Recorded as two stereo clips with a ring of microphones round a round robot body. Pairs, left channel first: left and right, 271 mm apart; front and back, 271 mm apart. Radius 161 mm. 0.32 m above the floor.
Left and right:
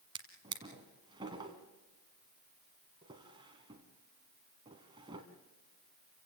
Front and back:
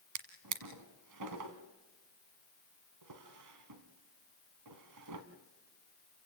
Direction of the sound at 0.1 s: 165° right.